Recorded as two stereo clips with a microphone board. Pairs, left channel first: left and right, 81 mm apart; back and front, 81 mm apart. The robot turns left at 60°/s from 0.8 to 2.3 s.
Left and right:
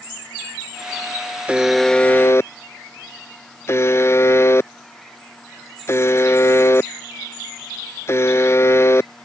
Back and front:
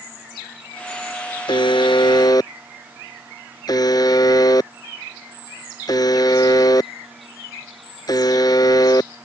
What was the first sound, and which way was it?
A buzzer, 165° right.